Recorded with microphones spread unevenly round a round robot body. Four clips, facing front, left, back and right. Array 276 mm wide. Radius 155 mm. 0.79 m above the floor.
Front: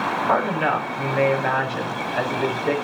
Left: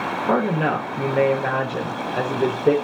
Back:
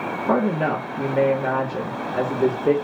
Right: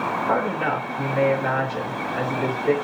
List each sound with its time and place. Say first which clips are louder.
0.3 s a woman speaking: left 4 dB, back 2 dB; 135° left, 3.5 m